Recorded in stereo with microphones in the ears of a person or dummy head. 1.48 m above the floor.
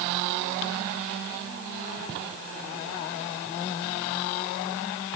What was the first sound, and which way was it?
Only background noise.